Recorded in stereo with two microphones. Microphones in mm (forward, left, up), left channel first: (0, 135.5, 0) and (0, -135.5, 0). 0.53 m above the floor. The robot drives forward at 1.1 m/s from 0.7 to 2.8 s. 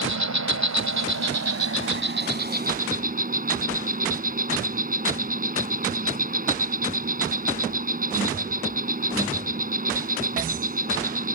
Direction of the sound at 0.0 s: 80° right.